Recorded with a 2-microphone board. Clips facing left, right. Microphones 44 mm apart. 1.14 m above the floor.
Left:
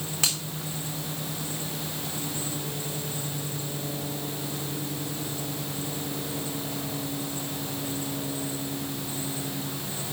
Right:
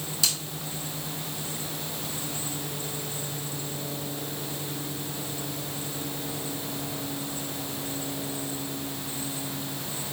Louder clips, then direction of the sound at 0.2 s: Even; 45° left (ahead or behind).